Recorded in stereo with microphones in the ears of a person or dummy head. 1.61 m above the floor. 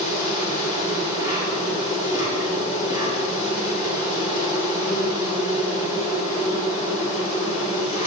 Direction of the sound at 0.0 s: 20° right (ahead or behind).